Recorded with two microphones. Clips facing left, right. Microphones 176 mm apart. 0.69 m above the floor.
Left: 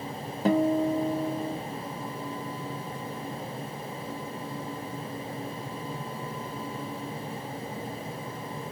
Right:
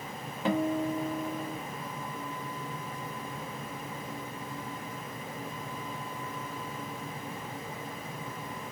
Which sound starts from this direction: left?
A guitar, at 0.5 s.